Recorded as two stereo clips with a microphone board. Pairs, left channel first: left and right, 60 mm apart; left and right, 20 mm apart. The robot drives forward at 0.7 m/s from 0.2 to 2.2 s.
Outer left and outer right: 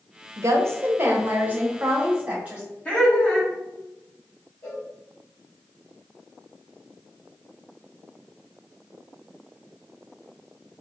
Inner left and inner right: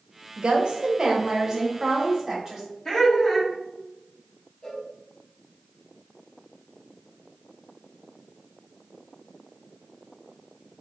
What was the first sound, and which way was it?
A woman speaking, 60° right (ahead or behind).